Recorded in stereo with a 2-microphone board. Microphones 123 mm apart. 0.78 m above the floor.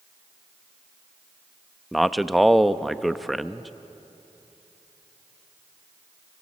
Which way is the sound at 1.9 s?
Centre (ahead or behind).